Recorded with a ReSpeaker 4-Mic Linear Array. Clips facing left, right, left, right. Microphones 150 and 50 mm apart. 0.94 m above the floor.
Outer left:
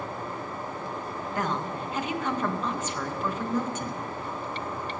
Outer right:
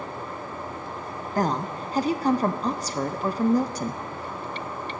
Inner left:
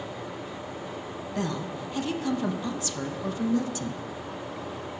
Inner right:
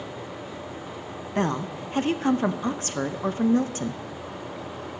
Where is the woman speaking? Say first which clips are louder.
Outer right 5 dB, inner right 5 dB; 35° right (ahead or behind), 0.6 m.